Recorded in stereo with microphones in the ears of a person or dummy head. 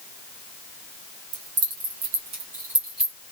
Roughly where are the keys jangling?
Right.